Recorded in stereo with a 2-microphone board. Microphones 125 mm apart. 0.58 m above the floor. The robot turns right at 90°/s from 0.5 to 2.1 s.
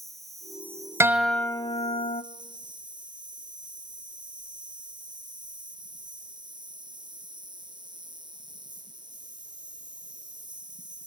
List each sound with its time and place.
0.0 s an insect: straight behind, 2.5 m; by 11.1 s 40° right, 2.5 m
1.0 s a guitar: 25° right, 1.0 m; by 2.2 s 75° left, 1.0 m